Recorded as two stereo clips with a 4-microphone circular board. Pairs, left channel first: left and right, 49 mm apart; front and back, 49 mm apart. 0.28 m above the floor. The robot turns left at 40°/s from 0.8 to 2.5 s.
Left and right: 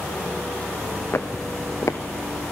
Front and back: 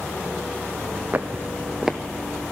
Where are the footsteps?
125° left, 1.0 m; by 2.0 s 90° left, 1.0 m.